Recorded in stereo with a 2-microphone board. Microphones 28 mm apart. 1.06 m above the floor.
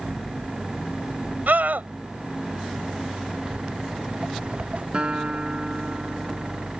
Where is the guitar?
35° right (ahead or behind).